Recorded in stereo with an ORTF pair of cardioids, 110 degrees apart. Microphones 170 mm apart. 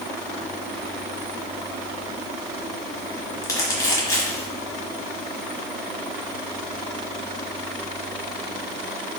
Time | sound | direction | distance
3.4 | crumpling | 15° left | 1.3 m